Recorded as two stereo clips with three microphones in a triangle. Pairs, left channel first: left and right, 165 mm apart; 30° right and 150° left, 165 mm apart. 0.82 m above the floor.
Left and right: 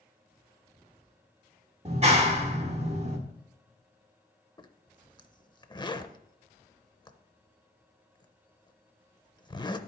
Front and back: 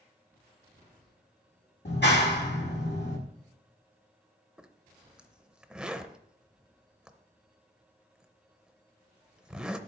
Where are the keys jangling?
I don't hear keys jangling.